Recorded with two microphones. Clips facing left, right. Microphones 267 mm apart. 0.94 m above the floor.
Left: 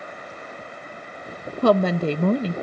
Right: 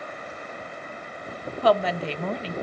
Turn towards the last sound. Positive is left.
turn(degrees=50)  # may be behind; listen again after turning